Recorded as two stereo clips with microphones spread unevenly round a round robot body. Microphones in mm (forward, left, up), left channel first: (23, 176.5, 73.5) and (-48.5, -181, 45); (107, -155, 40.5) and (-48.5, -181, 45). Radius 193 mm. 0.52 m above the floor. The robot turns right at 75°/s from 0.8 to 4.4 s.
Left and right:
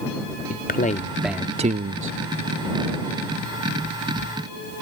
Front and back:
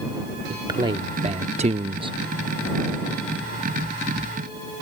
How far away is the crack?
No crack in this recording.